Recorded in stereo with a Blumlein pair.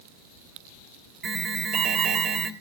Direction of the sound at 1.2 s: 20° right.